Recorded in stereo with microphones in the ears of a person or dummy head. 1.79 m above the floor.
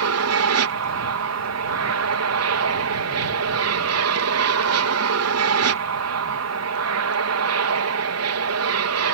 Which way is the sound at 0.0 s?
65° right (ahead or behind).